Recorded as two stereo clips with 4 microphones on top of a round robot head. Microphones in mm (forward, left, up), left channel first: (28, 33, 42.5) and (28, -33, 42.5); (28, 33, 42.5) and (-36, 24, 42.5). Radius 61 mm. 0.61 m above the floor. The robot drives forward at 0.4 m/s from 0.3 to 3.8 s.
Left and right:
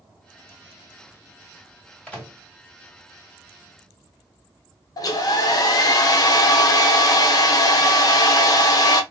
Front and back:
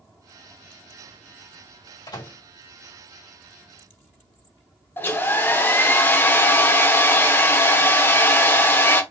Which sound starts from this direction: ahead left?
A hair dryer, at 5.0 s.